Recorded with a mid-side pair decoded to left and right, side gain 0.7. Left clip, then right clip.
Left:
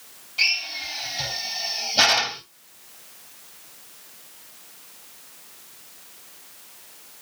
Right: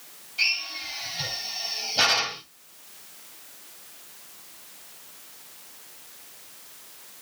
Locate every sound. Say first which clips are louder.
0.4 s a drill: left 3 dB; 20° left, 4 m